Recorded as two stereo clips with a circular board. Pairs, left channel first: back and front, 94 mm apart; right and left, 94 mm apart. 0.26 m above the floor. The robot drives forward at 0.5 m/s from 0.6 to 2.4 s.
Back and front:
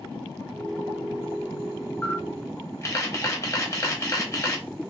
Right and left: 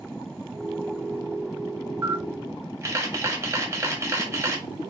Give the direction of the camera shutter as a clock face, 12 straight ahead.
8 o'clock.